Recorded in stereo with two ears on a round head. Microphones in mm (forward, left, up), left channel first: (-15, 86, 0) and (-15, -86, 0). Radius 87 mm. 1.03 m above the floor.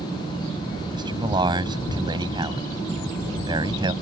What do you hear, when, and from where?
0.9 s a man speaking: 25° right (ahead or behind)